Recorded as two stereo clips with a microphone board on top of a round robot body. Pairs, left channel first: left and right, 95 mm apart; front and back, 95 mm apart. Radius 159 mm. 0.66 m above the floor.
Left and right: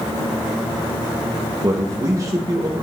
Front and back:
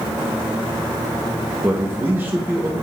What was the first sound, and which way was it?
A man speaking, 125° right.